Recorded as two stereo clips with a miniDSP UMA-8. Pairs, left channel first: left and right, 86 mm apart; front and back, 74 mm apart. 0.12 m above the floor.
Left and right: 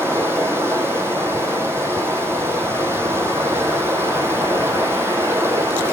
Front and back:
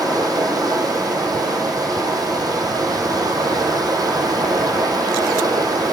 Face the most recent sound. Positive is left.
turn(degrees=-150)